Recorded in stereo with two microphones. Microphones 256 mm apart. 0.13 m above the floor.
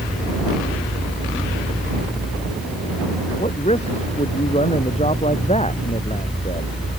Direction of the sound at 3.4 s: 25° left (ahead or behind).